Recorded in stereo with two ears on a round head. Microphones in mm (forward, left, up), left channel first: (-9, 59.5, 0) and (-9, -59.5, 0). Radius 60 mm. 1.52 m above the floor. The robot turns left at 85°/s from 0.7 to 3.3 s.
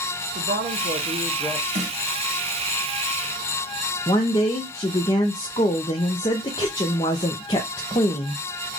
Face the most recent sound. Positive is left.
turn(degrees=30)  # may be behind; listen again after turning